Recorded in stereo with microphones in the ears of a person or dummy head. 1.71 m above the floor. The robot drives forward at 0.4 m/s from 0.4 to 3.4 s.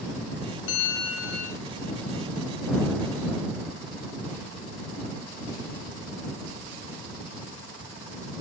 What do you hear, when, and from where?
0.7 s a bell: 60° left (ahead or behind), 0.9 m; by 1.6 s 50° left (ahead or behind), 1.1 m